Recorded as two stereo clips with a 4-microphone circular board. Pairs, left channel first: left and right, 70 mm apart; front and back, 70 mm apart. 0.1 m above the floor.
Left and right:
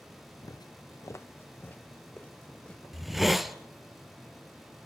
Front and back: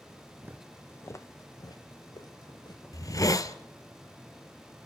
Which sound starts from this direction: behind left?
Footsteps, at 0.4 s.